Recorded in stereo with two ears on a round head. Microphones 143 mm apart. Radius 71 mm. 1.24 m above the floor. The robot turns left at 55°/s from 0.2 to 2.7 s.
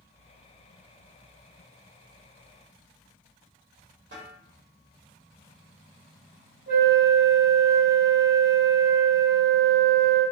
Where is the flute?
50° right (ahead or behind), 1.6 m.